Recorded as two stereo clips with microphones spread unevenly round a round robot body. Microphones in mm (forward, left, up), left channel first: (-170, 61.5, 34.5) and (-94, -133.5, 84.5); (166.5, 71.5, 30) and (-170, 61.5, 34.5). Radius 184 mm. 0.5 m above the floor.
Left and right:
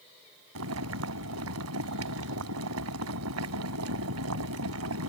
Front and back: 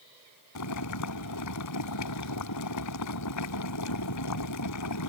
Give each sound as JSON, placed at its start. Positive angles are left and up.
{"t": 0.6, "sound": "boiling", "azimuth_deg": -45}